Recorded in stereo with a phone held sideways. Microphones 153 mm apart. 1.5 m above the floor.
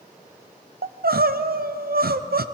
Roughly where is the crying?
Right.